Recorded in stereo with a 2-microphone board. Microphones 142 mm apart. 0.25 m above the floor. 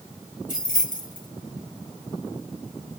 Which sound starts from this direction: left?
Keys jangling, at 0.5 s.